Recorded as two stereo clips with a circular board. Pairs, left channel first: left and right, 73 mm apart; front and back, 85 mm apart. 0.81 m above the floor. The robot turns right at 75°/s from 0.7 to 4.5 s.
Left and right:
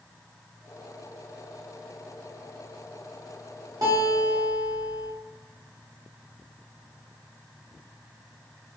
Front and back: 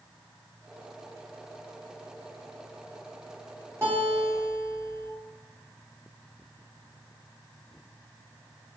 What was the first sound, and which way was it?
A guitar, 120° right.